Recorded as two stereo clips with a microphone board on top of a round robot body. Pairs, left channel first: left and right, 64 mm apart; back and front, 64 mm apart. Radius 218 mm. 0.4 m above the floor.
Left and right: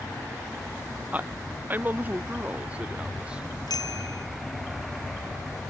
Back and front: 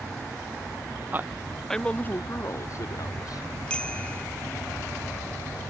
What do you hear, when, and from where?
1.1 s a man speaking: 40° right; by 3.5 s 165° right
3.7 s a bicycle bell: 105° left